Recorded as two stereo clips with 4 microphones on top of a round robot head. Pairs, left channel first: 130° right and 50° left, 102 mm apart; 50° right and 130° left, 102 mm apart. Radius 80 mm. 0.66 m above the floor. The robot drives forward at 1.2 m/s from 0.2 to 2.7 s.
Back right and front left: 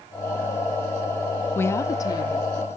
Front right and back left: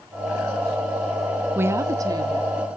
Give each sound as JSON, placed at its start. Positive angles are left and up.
{"t": 1.6, "sound": "a woman speaking", "azimuth_deg": 180, "distance_m": 0.7}